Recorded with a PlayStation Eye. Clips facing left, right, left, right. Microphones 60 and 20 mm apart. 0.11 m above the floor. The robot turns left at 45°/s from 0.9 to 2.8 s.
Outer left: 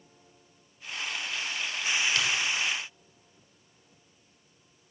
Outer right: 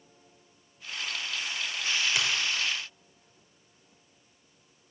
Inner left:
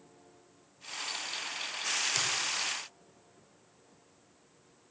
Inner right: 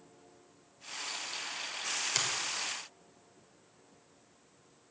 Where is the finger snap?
15° right (ahead or behind), 2.5 m; by 2.3 s 10° right (ahead or behind), 2.5 m.